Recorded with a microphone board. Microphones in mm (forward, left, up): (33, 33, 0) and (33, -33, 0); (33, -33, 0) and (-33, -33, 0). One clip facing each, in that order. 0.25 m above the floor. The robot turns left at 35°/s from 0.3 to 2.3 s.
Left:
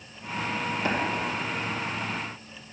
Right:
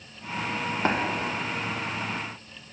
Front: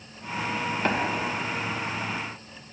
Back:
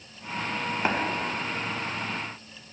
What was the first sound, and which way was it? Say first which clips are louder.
Tapping: right 3 dB, even; 105° right.